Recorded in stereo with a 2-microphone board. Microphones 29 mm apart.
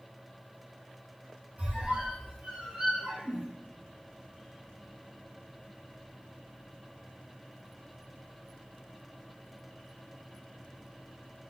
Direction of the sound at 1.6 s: 55° right (ahead or behind).